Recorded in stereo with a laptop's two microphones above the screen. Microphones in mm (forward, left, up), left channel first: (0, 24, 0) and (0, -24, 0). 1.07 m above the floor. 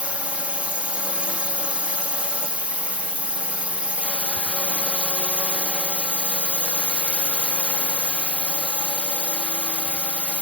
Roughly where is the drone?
Right.